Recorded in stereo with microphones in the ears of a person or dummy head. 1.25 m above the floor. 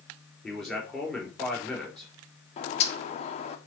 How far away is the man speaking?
About 3.5 m.